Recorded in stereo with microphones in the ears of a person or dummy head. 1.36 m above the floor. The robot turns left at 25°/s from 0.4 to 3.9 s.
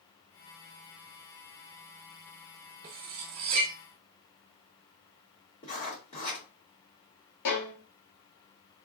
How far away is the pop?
No pop in this recording.